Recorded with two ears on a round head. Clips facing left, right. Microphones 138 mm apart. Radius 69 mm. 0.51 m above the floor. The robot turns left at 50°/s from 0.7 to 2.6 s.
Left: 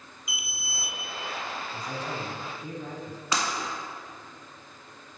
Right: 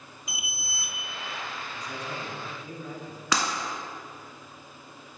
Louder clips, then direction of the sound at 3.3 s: Right 2 dB; 55° right (ahead or behind).